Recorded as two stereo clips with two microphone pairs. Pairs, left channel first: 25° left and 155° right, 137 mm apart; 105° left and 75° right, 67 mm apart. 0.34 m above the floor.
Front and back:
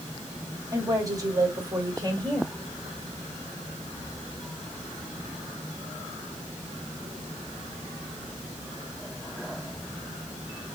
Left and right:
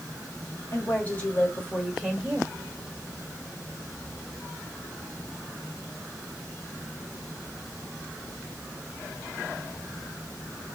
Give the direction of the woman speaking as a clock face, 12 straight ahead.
7 o'clock.